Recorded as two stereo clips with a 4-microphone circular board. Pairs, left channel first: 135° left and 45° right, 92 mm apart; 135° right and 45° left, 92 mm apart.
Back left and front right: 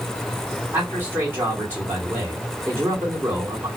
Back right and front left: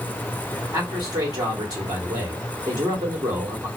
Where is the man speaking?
20° left, 2.0 m.